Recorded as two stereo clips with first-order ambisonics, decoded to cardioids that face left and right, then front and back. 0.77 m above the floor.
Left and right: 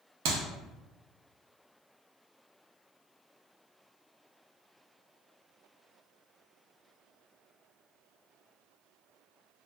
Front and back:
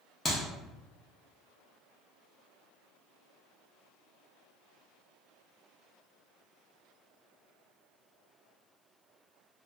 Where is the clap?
75° right, 0.7 m.